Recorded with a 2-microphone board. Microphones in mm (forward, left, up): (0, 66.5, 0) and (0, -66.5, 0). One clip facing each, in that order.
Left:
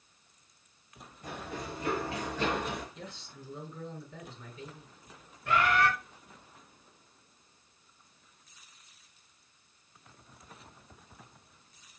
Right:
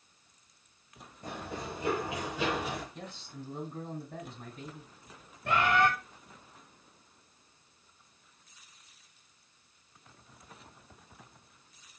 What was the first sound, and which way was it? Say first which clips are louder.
Running footsteps: right 1 dB; 40° right (ahead or behind).